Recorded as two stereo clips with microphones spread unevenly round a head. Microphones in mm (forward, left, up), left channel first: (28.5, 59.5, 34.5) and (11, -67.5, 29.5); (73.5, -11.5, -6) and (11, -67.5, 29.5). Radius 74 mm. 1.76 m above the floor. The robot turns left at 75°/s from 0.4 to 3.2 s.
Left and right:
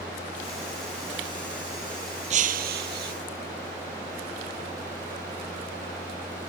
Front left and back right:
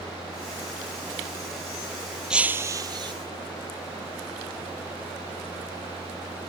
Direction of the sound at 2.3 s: 65° right.